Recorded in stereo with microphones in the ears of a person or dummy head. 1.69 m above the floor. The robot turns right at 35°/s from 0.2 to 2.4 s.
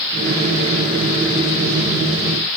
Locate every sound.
Only background noise.